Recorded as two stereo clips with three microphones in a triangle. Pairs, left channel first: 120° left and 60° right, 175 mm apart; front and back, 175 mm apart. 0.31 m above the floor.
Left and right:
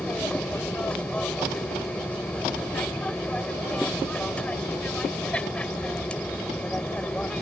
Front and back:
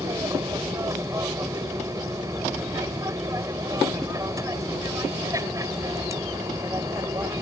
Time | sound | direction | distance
0.0 | an aircraft | 170° right | ?